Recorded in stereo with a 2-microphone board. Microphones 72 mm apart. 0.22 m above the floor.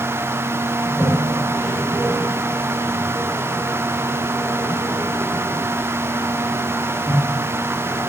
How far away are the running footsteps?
I don't hear running footsteps.